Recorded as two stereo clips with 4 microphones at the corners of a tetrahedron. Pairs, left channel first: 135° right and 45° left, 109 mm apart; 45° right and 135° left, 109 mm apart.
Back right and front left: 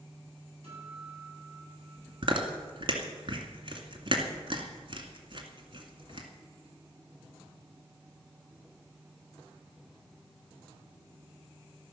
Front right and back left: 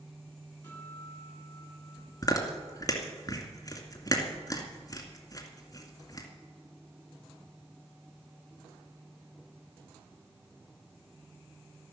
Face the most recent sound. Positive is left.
turn(degrees=10)